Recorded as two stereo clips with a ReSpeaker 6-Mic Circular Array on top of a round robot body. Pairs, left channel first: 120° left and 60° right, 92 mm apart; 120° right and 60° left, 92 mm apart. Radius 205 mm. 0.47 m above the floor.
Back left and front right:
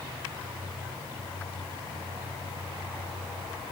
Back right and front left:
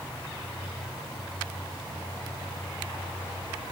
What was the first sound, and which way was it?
Only background noise.